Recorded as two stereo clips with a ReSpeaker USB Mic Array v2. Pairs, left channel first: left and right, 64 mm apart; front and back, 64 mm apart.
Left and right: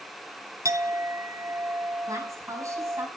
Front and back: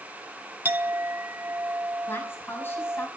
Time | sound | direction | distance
0.7 | a clink | 125° right | 0.8 m
2.1 | a woman speaking | 55° right | 5 m